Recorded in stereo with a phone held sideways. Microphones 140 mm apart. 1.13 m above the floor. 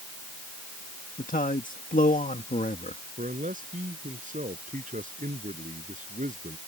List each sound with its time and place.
1.2 s a man speaking: 80° left
3.2 s a man speaking: 70° right (ahead or behind)